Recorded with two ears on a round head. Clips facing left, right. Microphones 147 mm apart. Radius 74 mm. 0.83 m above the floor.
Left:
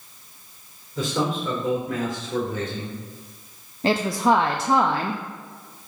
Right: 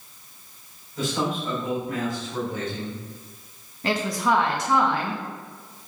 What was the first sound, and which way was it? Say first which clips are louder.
A man speaking: left 2 dB; 70° left (ahead or behind).